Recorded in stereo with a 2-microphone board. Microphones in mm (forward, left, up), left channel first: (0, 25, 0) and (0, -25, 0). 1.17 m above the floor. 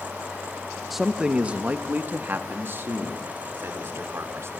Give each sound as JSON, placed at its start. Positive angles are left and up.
{"t": 0.9, "sound": "a man speaking", "side_deg": 0, "distance_m": 0.7}